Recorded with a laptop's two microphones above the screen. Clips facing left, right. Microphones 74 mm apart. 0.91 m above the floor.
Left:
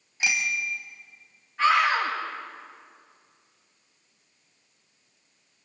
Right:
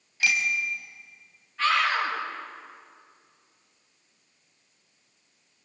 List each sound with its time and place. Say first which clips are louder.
0.2 s a bicycle bell: right 1 dB; 20° left (ahead or behind), 3.5 m
1.6 s a scream: left 3 dB; 25° left (ahead or behind), 7.5 m